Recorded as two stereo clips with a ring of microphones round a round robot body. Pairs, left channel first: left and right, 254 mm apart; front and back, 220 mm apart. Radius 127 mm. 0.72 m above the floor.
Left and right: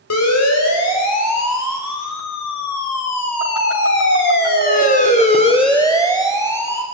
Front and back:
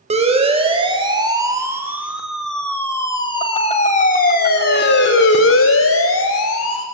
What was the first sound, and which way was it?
A siren, 120° left.